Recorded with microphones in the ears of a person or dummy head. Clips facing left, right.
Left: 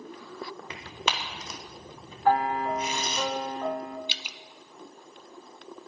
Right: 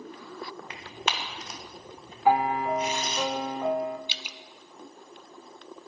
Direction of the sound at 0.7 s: 85° left.